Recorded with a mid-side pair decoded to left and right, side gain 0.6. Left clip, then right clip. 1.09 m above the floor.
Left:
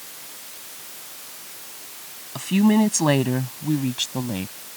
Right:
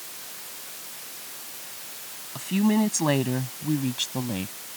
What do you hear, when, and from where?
2.4 s a woman speaking: 25° left; by 4.5 s 10° left